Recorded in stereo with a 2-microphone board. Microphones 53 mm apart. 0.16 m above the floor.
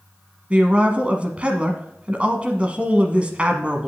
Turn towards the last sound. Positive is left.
turn(degrees=-25)  # may be behind; listen again after turning